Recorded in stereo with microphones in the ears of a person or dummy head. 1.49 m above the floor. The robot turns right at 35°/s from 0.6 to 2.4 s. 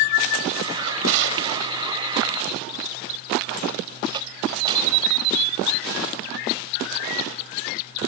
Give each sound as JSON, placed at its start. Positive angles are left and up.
{"t": 0.8, "sound": "a drawer", "side_deg": -80}